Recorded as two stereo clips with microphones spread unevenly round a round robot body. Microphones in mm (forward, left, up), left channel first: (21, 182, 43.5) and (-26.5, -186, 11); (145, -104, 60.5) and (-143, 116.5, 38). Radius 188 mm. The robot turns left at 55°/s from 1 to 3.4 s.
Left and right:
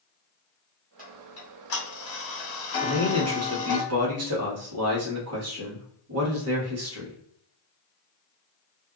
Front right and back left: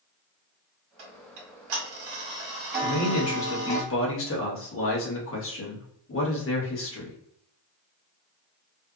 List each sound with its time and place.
1.0 s ticking: 175° left, 1.1 m; by 3.8 s 45° left, 1.1 m
2.8 s a man speaking: 50° right, 1.0 m; by 7.2 s 80° right, 1.0 m